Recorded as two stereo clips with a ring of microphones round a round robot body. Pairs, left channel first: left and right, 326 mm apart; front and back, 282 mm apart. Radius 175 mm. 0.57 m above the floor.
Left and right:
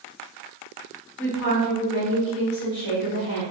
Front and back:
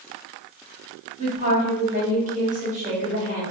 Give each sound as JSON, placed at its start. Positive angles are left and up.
{"t": 1.2, "sound": "a woman speaking", "azimuth_deg": 130, "distance_m": 1.3}